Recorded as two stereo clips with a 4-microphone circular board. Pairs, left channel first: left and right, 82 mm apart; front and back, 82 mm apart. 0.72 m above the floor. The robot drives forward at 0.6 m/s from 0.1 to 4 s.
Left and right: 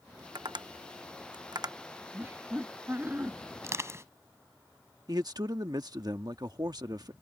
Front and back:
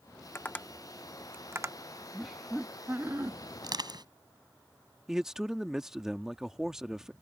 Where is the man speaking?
95° right.